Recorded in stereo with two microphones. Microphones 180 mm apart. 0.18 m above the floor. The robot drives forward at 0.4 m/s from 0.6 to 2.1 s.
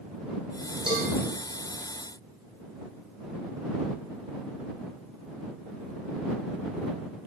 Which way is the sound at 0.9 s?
25° right (ahead or behind).